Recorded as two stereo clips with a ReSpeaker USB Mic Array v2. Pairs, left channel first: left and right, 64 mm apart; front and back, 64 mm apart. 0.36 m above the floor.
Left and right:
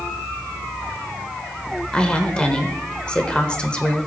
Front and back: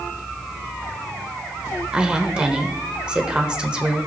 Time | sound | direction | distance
1.9 | a woman speaking | 135° left | 1.0 m